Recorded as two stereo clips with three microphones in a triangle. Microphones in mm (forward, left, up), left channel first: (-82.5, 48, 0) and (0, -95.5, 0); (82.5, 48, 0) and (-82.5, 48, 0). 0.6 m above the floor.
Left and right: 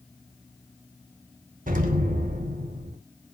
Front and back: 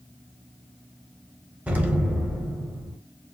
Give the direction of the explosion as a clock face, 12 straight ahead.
3 o'clock.